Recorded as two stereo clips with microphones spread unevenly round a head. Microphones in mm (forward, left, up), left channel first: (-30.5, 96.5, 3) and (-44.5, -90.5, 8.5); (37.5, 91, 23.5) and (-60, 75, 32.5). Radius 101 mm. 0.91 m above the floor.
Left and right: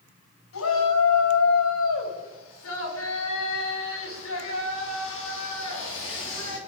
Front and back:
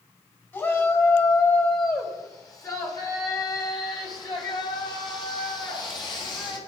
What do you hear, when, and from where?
0.5 s a shout: 75° left, 6 m; by 6.6 s 50° left, 9.5 m